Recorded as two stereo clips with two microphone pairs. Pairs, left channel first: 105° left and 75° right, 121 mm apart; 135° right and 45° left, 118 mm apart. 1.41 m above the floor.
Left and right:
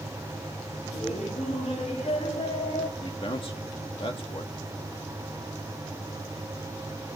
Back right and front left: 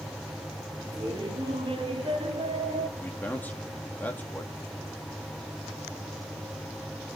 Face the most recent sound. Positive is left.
turn(degrees=150)